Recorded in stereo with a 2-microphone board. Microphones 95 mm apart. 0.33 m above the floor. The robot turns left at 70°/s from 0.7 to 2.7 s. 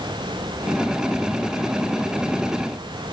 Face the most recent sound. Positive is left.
No sound to turn to.